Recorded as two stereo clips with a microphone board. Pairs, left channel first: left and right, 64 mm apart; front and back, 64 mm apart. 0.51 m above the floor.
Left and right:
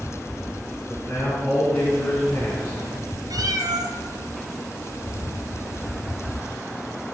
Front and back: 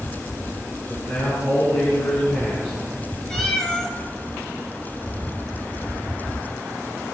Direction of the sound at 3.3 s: 80° right.